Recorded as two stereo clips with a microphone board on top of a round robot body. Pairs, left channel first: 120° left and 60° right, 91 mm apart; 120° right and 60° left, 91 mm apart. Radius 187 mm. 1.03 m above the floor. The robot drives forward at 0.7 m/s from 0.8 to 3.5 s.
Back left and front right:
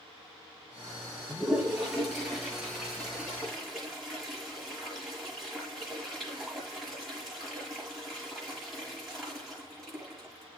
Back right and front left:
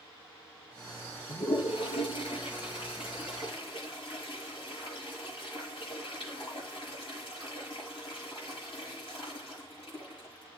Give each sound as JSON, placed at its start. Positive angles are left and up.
{"t": 1.3, "sound": "a toilet flushing", "azimuth_deg": -145, "distance_m": 5.5}